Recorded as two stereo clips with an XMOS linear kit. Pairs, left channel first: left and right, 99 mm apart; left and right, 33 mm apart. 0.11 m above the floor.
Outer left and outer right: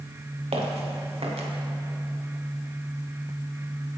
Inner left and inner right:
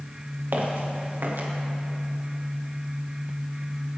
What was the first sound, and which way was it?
Footsteps, 75° right (ahead or behind).